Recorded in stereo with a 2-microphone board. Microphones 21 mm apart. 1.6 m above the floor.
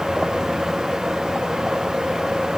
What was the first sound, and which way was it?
Only background noise.